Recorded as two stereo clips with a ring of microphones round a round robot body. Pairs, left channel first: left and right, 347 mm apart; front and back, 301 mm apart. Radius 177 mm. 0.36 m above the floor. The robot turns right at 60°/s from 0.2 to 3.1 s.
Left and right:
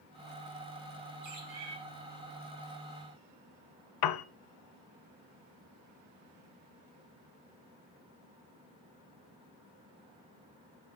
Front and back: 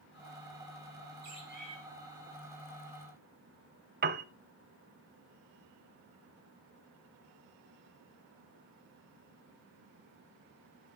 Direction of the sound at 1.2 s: 135° right.